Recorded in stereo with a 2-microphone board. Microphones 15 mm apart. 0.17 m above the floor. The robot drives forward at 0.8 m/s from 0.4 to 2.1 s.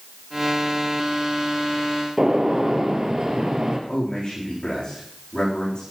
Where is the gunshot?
50° right (ahead or behind), 3 m.